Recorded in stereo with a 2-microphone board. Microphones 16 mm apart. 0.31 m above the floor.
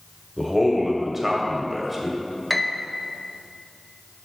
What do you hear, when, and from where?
0.4 s a man speaking: 15° right (ahead or behind), 1.2 m
2.5 s a piano: 10° left (ahead or behind), 0.5 m